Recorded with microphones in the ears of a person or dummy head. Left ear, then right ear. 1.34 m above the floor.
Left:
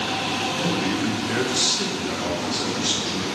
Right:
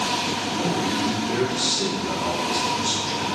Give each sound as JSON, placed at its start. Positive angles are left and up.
{"t": 0.6, "sound": "a man speaking", "side_deg": 30, "distance_m": 0.5}